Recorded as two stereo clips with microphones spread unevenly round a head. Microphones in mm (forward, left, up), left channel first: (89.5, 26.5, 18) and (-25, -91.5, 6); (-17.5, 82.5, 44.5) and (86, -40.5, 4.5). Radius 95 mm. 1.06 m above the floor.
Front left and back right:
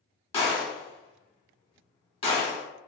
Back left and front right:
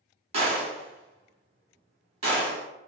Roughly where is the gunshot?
Ahead.